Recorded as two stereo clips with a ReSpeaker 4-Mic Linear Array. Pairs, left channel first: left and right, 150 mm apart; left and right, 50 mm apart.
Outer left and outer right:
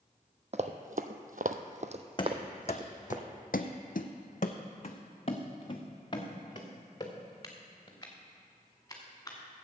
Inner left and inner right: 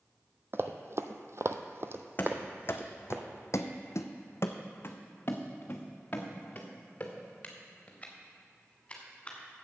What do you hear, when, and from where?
0.5 s running footsteps: 50° right (ahead or behind), 0.7 m; by 3.2 s 25° right (ahead or behind), 1.3 m
2.2 s running footsteps: 35° left (ahead or behind), 1.0 m; by 9.4 s 20° left (ahead or behind), 3.5 m